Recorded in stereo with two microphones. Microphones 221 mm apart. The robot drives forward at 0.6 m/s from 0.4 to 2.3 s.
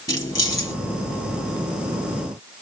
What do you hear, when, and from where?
0.1 s keys jangling: 15° left (ahead or behind), 3.5 m